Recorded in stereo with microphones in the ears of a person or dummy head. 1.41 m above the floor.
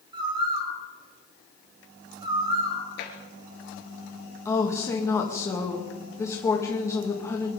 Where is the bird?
20° right (ahead or behind), 5.5 m.